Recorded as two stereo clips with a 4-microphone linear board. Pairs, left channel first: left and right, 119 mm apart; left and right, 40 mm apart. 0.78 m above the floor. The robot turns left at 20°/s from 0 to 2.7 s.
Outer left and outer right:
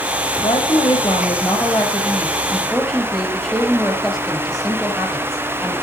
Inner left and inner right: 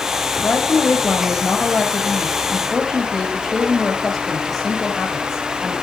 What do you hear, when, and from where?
0.4 s a woman speaking: 45° left, 5 m; by 5.7 s straight ahead, 5 m